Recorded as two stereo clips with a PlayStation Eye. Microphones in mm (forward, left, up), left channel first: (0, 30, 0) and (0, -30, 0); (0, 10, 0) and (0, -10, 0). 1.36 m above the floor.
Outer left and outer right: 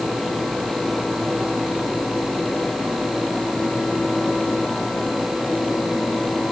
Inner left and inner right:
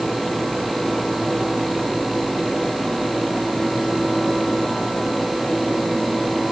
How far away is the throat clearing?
No throat clearing in this recording.